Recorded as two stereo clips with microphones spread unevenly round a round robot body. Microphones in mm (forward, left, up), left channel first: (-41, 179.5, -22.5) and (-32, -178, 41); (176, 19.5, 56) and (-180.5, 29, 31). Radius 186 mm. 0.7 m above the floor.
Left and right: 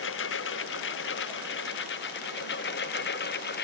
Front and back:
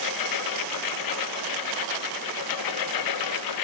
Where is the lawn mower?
30° left; by 3.6 s 25° left.